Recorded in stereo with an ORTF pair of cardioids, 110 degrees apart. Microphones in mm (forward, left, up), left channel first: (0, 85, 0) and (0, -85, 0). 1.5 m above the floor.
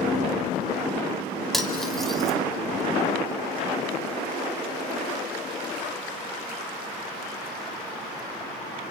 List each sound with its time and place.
1.5 s cutlery clinking: straight ahead, 2.5 m